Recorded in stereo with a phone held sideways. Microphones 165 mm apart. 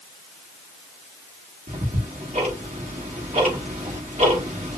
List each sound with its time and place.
1.7 s ticking: 45° right (ahead or behind), 1.2 m